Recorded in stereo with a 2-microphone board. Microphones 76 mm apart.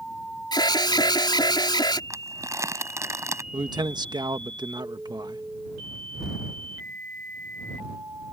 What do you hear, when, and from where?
0.5 s an alarm: 75° left (ahead or behind)
2.1 s crumpling: 40° right (ahead or behind)
3.5 s a man speaking: 70° right (ahead or behind)